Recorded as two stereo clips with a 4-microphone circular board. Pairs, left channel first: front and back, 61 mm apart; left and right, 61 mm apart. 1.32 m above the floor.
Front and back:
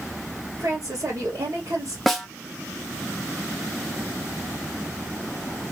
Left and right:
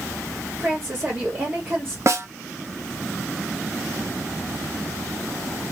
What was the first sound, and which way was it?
A woman speaking, 150° right.